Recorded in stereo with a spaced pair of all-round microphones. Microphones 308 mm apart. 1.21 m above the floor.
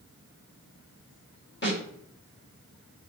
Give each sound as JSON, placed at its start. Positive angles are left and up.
{"t": 1.6, "sound": "a snare drum", "side_deg": 35, "distance_m": 1.4}